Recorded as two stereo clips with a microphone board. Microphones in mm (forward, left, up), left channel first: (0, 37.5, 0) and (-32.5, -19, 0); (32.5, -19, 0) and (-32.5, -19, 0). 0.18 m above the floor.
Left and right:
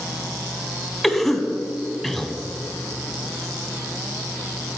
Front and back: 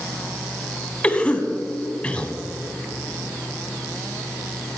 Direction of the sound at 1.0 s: 25° right.